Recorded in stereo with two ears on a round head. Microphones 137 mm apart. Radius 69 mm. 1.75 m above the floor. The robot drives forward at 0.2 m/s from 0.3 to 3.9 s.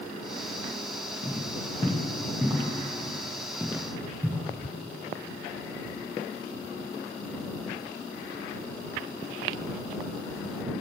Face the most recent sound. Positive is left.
turn(degrees=-10)  # may be behind; listen again after turning